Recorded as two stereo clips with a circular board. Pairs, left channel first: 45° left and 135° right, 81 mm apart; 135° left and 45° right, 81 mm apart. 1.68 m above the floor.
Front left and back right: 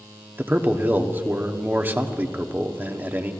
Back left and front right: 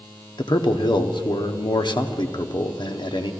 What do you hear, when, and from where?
0.4 s a man speaking: 160° left, 1.0 m